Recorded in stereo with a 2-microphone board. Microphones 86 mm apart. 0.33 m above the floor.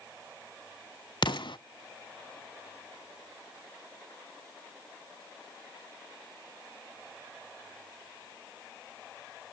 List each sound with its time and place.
1.2 s an explosion: 65° left (ahead or behind), 0.5 m